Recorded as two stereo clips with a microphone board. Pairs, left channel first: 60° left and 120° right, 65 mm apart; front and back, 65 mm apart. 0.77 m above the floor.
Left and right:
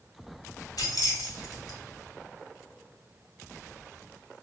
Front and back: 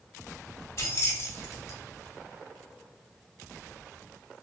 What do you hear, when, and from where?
0.8 s keys jangling: 40° left, 0.8 m